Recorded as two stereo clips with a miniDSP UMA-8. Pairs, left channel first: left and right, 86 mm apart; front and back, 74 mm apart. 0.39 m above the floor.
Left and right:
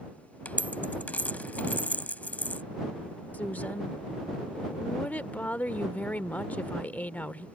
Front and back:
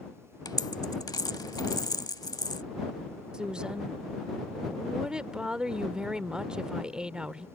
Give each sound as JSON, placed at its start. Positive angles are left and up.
{"t": 0.5, "sound": "a dropped coin", "azimuth_deg": 20}
{"t": 3.3, "sound": "a woman speaking", "azimuth_deg": 125}